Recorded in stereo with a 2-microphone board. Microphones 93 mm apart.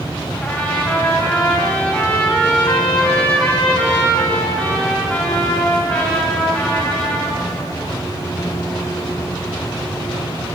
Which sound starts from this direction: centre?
A trumpet, at 0.4 s.